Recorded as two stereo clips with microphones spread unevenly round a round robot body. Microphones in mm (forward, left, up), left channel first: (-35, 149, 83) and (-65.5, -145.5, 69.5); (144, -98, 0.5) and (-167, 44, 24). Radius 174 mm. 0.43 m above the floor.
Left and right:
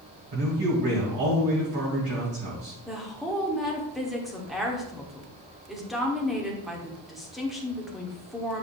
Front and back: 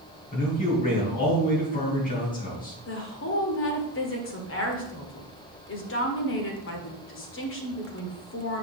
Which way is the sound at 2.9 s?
10° right.